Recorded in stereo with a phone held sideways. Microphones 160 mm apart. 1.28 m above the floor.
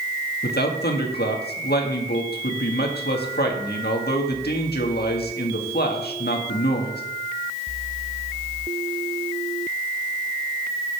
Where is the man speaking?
85° left, 1.8 m.